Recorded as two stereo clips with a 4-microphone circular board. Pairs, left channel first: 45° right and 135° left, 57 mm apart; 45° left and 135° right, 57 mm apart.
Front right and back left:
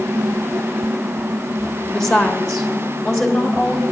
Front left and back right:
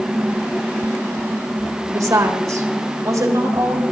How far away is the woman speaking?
About 1.4 m.